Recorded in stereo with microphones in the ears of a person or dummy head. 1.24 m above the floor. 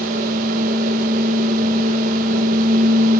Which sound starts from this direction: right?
A fan, at 0.0 s.